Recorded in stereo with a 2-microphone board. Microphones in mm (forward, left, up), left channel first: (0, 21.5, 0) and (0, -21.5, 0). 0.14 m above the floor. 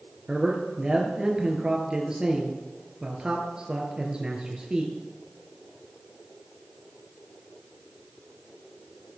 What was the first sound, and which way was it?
A man speaking, 20° right (ahead or behind).